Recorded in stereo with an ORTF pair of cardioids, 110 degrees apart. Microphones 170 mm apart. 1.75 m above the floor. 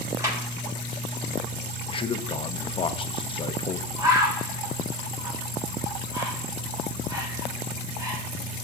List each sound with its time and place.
0.2 s a clap: 20° right, 7 m
1.9 s a man speaking: 30° left, 0.9 m
4.0 s a bird: 25° right, 2.5 m